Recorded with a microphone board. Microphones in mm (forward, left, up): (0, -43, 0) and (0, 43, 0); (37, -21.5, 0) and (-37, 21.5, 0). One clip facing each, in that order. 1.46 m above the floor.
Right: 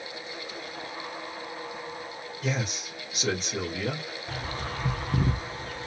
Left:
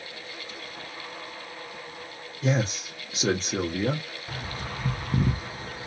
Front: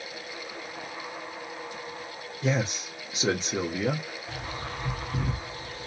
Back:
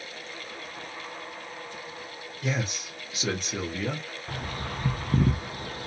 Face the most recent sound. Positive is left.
turn(degrees=175)